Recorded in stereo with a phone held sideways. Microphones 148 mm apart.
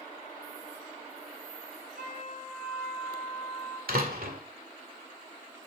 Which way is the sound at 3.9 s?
85° right.